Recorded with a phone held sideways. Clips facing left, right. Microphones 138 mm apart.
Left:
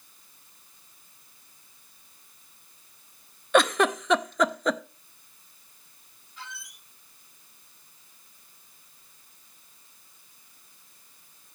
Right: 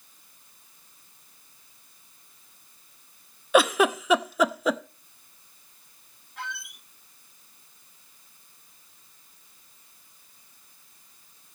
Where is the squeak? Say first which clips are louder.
Right 6 dB; 60° right (ahead or behind), 1.1 m.